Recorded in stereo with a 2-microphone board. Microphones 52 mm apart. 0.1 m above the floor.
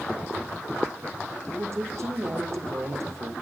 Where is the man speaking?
60° right (ahead or behind), 6.5 m; by 3.3 s 70° right (ahead or behind), 6.5 m.